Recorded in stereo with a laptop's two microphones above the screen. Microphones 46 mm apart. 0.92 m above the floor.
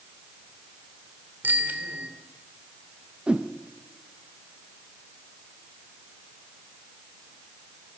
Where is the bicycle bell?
45° right (ahead or behind), 2 m.